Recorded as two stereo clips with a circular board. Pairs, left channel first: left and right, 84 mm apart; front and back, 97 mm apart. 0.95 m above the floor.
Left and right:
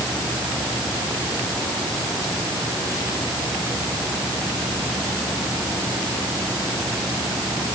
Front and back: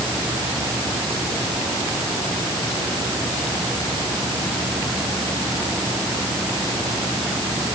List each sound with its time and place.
Only background noise.